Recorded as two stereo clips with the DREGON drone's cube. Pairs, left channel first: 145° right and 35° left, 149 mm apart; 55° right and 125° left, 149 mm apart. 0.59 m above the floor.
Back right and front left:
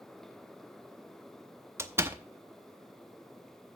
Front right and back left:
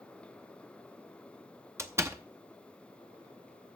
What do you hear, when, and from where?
1.8 s a door slam: 80° left, 0.7 m